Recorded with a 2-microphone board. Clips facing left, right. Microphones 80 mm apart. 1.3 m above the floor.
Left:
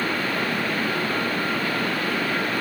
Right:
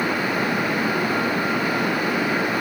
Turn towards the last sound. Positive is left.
No sound to turn to.